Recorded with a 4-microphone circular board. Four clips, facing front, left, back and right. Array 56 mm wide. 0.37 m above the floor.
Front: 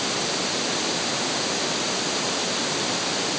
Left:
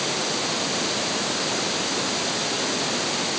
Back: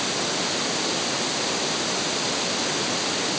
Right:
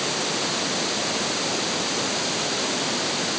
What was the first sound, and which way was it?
Only background noise.